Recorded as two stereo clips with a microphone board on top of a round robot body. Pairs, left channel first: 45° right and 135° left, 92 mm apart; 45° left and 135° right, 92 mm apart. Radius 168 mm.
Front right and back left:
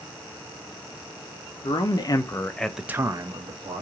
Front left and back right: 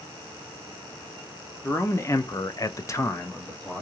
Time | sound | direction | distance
1.6 | a man speaking | 15° right | 1.1 m